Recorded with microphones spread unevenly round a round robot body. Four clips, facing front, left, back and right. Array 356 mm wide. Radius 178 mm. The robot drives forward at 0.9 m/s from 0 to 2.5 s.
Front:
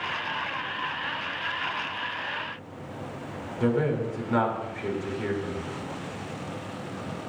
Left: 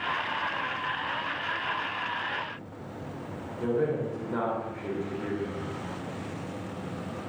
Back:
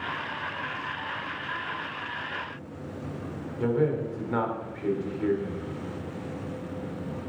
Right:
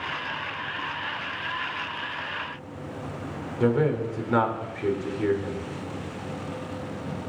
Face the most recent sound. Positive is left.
turn(degrees=-90)